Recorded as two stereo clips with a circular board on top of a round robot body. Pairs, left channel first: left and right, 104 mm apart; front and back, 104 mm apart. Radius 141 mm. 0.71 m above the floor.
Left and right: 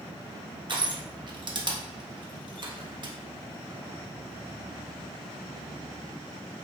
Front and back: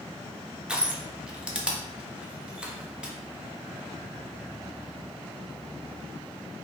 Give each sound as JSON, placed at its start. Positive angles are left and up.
{"t": 0.7, "sound": "crushing", "azimuth_deg": -100, "distance_m": 1.1}